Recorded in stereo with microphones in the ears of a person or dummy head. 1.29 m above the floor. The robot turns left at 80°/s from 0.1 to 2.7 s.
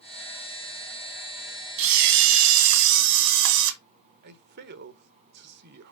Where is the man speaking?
60° right (ahead or behind), 1.0 m.